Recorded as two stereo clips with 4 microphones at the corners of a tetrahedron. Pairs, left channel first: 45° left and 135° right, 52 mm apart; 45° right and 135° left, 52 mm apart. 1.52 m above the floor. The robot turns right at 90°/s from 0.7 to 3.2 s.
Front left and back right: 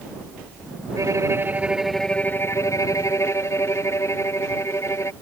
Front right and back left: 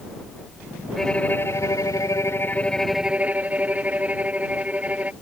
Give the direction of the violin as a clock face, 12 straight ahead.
4 o'clock.